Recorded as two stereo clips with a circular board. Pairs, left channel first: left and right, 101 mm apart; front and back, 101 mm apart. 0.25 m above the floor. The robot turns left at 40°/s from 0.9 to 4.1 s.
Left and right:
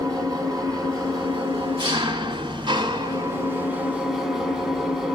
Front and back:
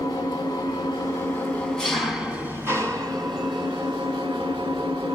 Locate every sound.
0.0 s an engine running: 45° right, 1.5 m; by 5.2 s 175° right, 1.5 m